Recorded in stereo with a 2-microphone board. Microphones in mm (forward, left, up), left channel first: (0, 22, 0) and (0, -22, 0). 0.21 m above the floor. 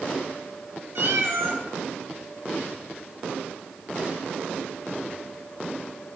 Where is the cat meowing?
60° right (ahead or behind), 1.0 m.